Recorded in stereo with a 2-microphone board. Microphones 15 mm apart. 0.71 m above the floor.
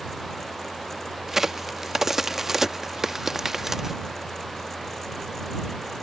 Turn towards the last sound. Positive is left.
turn(degrees=-20)  # may be behind; listen again after turning